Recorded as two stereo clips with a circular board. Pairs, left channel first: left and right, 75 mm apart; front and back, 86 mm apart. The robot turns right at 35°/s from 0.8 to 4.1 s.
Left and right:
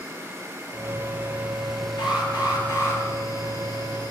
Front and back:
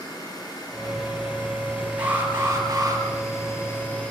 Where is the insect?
40° right, 5 m; by 4.1 s 75° left, 5 m.